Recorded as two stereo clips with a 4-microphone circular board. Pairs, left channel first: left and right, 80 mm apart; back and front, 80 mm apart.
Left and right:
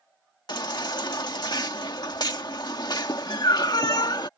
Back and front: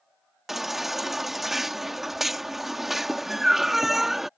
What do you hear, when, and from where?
0.5 s a baby crying: 90° left